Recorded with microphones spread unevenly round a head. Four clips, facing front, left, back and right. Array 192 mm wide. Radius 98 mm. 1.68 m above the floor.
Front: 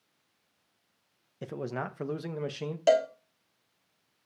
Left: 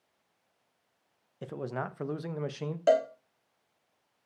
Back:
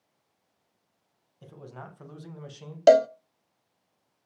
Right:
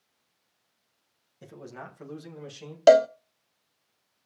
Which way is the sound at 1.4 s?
35° left.